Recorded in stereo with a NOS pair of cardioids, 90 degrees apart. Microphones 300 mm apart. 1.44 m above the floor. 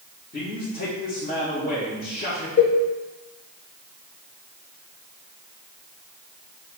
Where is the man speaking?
35° left, 2.5 m.